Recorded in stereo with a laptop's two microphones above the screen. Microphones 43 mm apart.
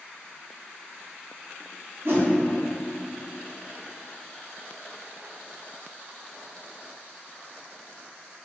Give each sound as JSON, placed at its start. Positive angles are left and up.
{"t": 2.0, "sound": "a whoosh", "side_deg": -50, "distance_m": 0.5}